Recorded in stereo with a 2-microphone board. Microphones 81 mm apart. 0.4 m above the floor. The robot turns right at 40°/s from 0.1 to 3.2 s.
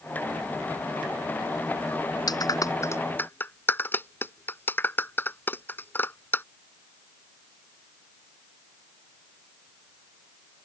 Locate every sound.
2.3 s a clap: 60° left (ahead or behind); by 6.5 s 25° left (ahead or behind)